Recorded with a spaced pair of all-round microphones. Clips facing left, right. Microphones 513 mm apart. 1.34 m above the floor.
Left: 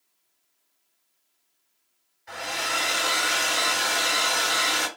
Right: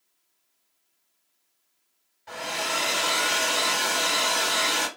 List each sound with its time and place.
2.3 s a hair dryer: 50° right (ahead or behind), 1.3 m